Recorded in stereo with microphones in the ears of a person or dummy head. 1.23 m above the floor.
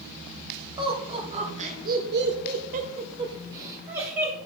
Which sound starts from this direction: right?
Laughter, at 0.8 s.